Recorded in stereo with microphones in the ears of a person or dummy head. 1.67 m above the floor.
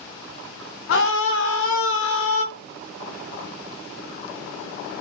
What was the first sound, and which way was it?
A scream, 70° left (ahead or behind).